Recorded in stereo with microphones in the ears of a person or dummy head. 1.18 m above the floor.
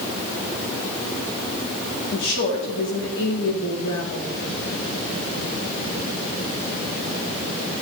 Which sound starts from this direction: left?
A woman speaking, at 2.1 s.